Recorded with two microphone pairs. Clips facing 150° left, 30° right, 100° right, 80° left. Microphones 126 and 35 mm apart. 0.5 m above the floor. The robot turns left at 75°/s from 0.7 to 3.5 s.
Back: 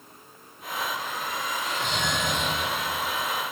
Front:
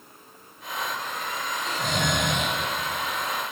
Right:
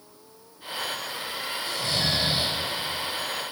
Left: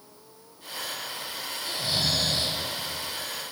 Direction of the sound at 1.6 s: 35° left.